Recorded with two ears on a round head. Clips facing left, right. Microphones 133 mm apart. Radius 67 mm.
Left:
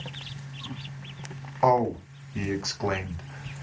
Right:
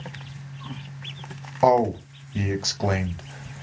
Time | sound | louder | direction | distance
1.6 | a man speaking | right 4 dB | 35° right (ahead or behind) | 1.1 m